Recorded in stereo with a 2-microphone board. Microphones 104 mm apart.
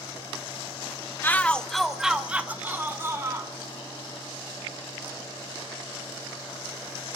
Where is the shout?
20° left (ahead or behind), 0.8 m; by 3.5 s 30° right (ahead or behind), 1.5 m.